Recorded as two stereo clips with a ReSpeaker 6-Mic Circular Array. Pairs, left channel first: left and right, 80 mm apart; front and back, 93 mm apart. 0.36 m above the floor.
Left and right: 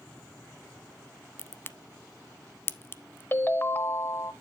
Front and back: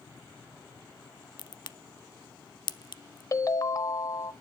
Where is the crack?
30° left, 0.5 m.